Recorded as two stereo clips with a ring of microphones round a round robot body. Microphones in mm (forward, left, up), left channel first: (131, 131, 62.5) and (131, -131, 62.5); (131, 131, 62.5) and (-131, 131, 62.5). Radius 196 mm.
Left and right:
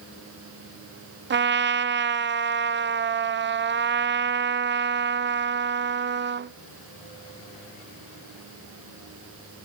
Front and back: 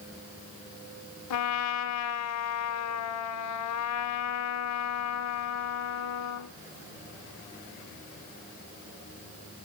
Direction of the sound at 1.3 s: 35° right.